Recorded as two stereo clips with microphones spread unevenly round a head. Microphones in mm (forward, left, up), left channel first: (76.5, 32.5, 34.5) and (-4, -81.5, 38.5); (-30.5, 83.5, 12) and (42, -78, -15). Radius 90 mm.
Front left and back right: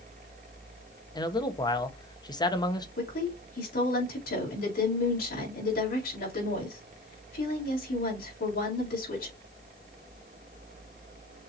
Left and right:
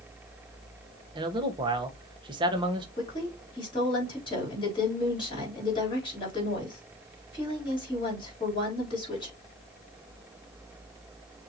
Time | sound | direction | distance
1.1 | a man speaking | 5° right | 1.1 m
3.0 | a woman speaking | 50° left | 3.5 m